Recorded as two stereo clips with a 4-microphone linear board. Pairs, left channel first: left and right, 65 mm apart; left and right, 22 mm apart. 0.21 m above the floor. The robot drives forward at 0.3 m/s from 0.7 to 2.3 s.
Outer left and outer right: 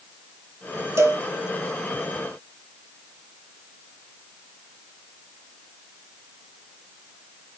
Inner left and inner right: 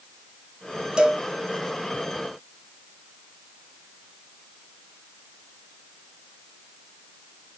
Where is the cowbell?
45° right (ahead or behind), 2.5 m.